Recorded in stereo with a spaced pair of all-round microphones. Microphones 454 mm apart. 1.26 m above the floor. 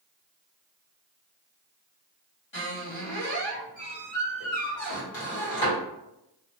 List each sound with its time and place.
2.5 s a squeak: 70° left (ahead or behind), 1.2 m